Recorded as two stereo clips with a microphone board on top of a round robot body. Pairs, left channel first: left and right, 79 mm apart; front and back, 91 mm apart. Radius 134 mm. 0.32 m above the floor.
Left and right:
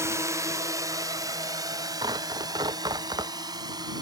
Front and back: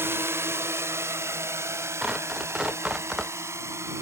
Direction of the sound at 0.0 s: 125° right.